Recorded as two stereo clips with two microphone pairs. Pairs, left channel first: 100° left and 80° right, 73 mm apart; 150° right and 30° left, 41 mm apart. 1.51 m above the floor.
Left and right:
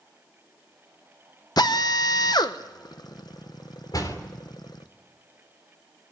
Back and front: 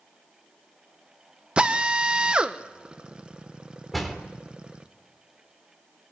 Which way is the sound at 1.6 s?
90° left.